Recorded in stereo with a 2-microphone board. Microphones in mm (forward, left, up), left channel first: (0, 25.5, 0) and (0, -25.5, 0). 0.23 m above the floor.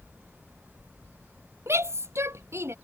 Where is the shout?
60° right (ahead or behind).